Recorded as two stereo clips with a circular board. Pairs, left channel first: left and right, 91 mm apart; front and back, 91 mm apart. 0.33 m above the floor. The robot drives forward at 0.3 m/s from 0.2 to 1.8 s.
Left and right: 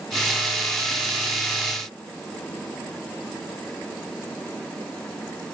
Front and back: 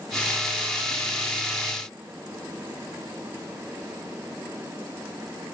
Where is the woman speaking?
No woman speaking in this recording.